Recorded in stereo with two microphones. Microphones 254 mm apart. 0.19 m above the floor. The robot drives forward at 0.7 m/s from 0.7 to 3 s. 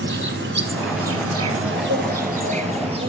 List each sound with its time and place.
0.0 s an insect: 45° right (ahead or behind), 0.7 m; by 3.1 s 25° right (ahead or behind), 1.3 m